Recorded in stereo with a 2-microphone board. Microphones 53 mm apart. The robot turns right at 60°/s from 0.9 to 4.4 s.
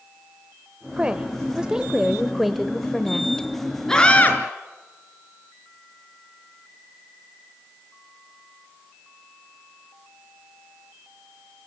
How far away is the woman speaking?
About 0.9 m.